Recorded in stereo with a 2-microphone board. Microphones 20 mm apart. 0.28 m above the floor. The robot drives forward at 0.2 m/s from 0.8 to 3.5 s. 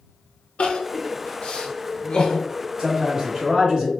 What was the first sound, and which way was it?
Crying, 70° left (ahead or behind).